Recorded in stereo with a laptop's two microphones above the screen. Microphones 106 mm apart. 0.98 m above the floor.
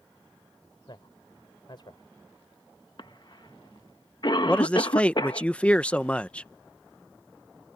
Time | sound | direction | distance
0.9 | a man speaking | 50° left (ahead or behind) | ?
3.0 | a cough | 45° left (ahead or behind) | ?
4.5 | a man speaking | 10° left (ahead or behind) | ?